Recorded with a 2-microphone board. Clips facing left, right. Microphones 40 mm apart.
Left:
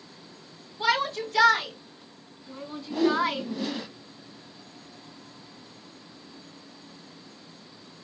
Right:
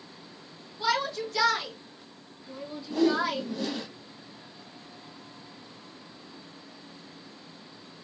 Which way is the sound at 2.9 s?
20° left (ahead or behind).